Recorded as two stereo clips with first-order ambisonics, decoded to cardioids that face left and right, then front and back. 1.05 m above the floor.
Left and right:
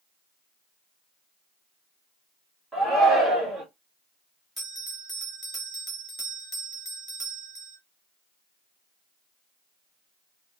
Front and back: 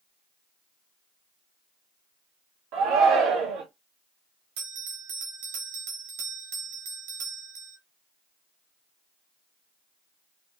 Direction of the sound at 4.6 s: 170° left.